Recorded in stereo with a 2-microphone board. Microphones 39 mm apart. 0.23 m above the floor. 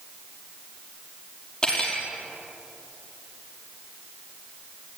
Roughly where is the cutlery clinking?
Centre.